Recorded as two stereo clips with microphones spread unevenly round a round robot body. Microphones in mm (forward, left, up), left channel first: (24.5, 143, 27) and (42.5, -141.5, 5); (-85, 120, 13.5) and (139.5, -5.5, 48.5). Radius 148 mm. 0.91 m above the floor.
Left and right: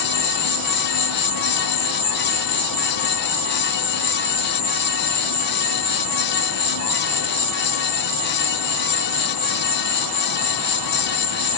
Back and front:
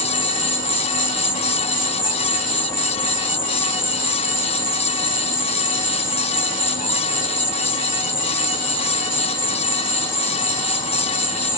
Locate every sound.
0.0 s an insect: 90° left, 2.5 m